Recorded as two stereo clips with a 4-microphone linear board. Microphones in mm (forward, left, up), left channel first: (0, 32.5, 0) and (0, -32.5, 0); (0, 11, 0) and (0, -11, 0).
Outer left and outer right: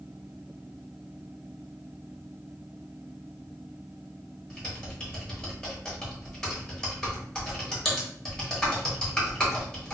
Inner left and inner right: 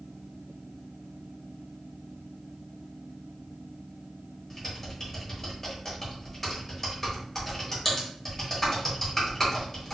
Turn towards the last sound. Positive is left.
turn(degrees=15)  # may be behind; listen again after turning